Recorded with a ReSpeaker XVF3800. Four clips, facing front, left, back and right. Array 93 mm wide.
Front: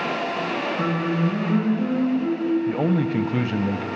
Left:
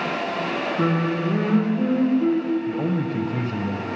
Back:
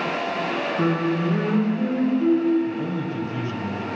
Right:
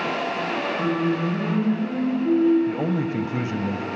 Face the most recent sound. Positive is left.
turn(degrees=-15)